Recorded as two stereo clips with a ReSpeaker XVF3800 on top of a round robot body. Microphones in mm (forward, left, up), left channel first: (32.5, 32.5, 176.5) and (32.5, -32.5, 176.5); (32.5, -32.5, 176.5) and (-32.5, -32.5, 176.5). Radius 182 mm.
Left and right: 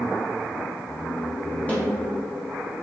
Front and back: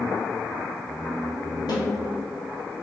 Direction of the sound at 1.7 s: 20° left.